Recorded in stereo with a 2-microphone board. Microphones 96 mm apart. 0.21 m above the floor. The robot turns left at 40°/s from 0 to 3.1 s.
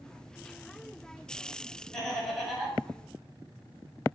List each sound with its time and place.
1.9 s laughter: 5° left (ahead or behind), 1.1 m; by 2.8 s 10° right (ahead or behind), 1.1 m